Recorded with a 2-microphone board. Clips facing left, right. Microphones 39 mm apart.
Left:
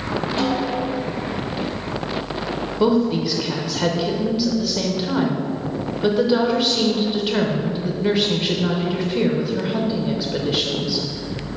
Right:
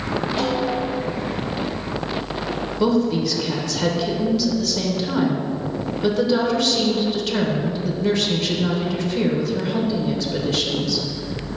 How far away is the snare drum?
About 2.0 m.